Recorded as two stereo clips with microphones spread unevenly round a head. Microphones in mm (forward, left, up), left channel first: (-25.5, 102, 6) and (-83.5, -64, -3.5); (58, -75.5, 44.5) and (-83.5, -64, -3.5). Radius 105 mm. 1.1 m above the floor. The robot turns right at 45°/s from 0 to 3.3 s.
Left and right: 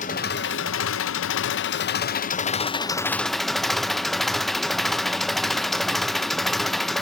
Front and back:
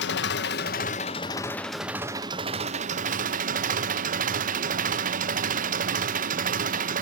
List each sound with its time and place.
0.0 s an engine running: 10° left, 0.8 m; by 7.0 s 160° left, 0.8 m